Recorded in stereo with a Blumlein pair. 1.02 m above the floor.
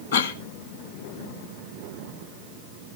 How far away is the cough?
About 1.6 m.